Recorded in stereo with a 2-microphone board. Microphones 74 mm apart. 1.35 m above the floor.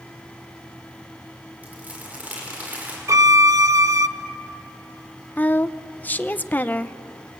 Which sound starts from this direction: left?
A woman speaking, at 5.4 s.